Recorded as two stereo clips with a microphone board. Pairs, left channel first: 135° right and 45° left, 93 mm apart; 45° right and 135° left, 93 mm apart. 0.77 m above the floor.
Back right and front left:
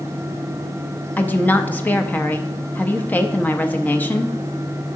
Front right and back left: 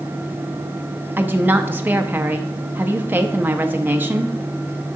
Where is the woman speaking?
Straight behind, 0.5 m.